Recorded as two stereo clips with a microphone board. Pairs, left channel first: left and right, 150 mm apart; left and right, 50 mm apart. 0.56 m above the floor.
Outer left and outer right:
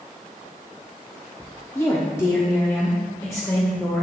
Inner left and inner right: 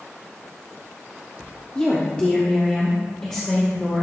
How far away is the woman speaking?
About 0.7 m.